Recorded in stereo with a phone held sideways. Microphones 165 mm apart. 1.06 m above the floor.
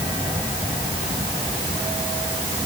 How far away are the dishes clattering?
No dishes clattering in this recording.